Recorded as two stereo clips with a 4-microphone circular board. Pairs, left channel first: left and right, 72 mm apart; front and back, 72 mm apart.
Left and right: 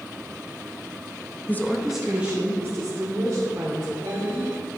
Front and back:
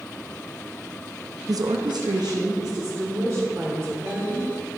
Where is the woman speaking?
145° left, 0.7 m; by 4.5 s 135° right, 3 m.